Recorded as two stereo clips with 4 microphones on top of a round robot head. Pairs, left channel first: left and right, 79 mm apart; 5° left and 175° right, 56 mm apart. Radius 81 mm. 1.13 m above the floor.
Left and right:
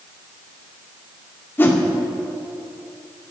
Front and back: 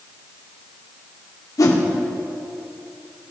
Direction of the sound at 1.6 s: 25° left.